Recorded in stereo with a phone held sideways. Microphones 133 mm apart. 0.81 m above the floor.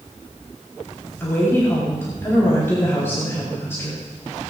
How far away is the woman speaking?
About 5 m.